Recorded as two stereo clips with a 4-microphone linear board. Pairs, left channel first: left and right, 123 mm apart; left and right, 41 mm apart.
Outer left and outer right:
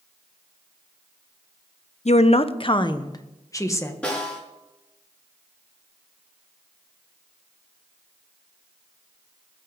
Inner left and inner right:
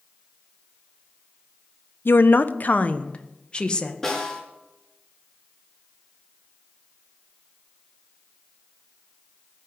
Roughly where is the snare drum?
Centre.